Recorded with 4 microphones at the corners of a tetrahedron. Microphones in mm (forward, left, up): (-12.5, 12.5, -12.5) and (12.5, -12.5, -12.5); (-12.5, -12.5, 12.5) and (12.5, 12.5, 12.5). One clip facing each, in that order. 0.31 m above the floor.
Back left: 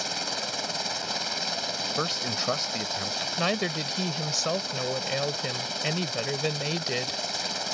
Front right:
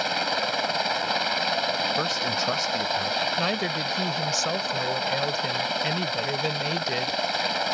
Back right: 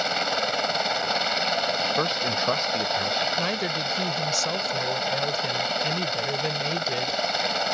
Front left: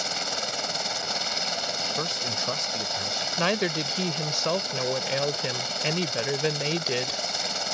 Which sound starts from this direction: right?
A helicopter, at 0.0 s.